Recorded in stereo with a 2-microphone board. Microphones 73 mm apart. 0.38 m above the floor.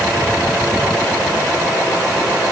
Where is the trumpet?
No trumpet in this recording.